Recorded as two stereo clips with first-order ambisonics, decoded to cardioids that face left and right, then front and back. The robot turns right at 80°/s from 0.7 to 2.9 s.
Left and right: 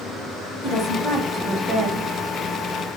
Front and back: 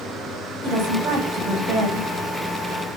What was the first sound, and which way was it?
A woman speaking, 135° left.